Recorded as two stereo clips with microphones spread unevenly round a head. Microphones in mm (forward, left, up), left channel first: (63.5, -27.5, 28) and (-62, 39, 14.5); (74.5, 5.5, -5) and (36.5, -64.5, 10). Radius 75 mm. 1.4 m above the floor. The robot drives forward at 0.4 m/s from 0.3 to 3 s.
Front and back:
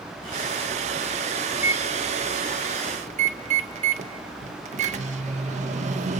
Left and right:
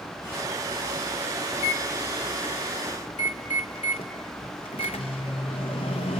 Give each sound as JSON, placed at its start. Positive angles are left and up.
{"t": 1.5, "sound": "a microwave", "azimuth_deg": 75, "distance_m": 1.1}